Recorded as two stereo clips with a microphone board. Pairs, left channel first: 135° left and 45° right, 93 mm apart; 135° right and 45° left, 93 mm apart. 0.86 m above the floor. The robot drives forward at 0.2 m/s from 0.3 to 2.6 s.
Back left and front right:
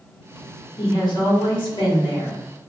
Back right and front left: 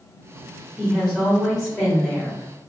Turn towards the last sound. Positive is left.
turn(degrees=145)